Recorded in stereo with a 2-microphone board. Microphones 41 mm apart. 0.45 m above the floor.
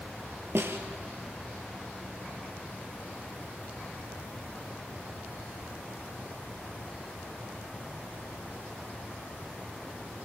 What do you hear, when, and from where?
0.6 s a snare drum: 70° right (ahead or behind), 2.5 m